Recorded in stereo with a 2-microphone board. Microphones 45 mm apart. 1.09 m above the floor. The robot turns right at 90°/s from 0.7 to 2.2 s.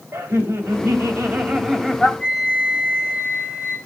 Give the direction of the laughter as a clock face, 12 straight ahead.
3 o'clock.